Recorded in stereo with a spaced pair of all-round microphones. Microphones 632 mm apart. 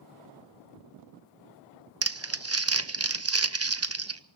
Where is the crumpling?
25° right (ahead or behind), 0.5 m.